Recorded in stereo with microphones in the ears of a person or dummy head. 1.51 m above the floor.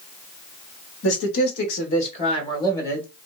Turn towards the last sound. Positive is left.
turn(degrees=10)  # may be behind; listen again after turning